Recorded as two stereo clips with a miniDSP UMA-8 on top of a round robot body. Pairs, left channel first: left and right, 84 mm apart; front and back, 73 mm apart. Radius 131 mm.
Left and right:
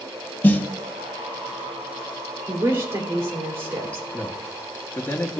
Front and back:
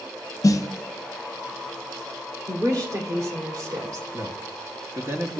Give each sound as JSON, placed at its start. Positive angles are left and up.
{"t": 0.4, "sound": "a snare drum", "azimuth_deg": 25, "distance_m": 0.7}
{"t": 2.5, "sound": "a woman speaking", "azimuth_deg": -145, "distance_m": 2.5}
{"t": 4.1, "sound": "a man speaking", "azimuth_deg": 145, "distance_m": 1.5}